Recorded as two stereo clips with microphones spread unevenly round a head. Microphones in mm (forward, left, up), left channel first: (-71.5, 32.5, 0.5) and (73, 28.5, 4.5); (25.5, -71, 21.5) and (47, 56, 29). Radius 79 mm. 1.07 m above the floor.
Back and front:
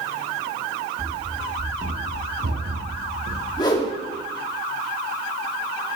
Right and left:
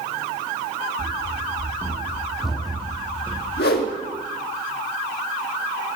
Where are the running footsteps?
40° left, 1.9 m; by 3.5 s 25° right, 2.5 m.